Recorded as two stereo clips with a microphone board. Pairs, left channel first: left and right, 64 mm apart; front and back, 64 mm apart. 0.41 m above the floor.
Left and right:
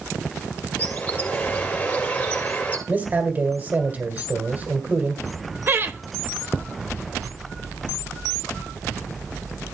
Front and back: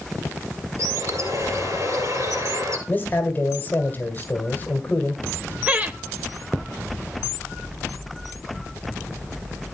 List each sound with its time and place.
0.8 s a bird: 150° left, 2.5 m
2.9 s a man speaking: 40° right, 1.6 m
5.7 s laughter: 125° right, 1.2 m